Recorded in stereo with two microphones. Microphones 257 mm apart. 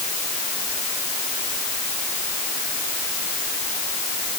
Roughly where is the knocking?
I don't hear knocking.